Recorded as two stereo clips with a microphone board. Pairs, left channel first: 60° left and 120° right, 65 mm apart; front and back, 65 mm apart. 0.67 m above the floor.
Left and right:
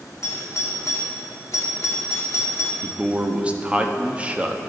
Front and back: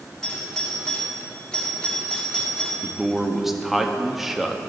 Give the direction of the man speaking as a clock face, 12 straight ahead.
3 o'clock.